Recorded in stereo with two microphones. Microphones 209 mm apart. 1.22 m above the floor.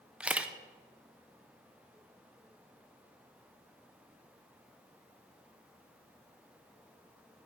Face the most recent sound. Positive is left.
turn(degrees=-5)  # may be behind; listen again after turning